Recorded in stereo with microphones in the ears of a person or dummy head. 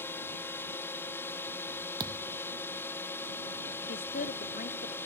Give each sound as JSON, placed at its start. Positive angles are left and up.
{"t": 0.0, "sound": "a drone", "side_deg": 20}
{"t": 2.0, "sound": "a thud", "side_deg": -20}
{"t": 3.9, "sound": "a woman speaking", "side_deg": 40}